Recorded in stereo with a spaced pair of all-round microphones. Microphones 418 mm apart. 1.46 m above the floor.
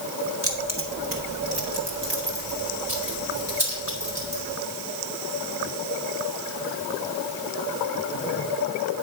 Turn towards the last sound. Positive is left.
turn(degrees=-60)  # may be behind; listen again after turning